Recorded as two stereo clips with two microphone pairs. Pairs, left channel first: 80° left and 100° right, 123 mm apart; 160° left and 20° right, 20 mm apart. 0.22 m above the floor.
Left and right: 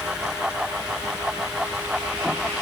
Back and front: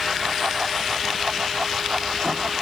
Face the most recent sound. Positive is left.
No sound to turn to.